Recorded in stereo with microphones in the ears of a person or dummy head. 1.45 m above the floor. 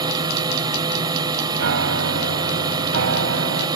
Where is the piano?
75° right (ahead or behind).